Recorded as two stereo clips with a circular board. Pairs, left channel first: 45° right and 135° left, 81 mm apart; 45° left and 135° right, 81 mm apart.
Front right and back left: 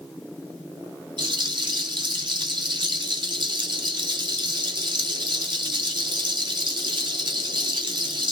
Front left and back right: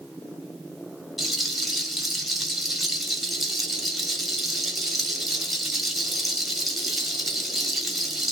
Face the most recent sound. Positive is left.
turn(degrees=135)